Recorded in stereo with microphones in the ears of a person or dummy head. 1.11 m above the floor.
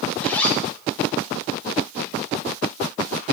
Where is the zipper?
10° left (ahead or behind), 0.6 m.